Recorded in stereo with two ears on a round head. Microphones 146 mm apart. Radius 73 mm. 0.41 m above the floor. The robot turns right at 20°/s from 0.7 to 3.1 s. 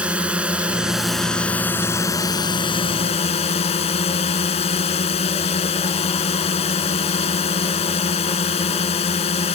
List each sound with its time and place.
0.0 s a drone: 10° right; by 9.6 s 40° left